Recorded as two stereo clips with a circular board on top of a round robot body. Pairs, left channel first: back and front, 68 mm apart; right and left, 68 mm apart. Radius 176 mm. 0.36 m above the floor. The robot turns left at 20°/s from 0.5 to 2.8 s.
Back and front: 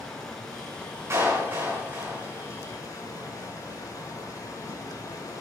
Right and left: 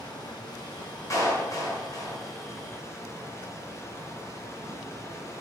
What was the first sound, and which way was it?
Running water, 95° right.